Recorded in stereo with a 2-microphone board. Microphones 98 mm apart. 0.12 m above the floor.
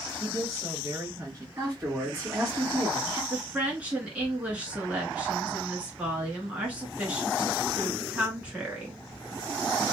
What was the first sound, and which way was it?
A woman speaking, 35° right (ahead or behind).